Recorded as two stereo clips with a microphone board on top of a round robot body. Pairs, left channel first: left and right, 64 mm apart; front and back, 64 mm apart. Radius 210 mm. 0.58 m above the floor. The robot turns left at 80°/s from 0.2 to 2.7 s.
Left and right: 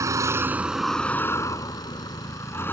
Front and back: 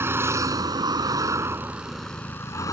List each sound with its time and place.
0.0 s a vehicle: 130° right; by 2.7 s 30° left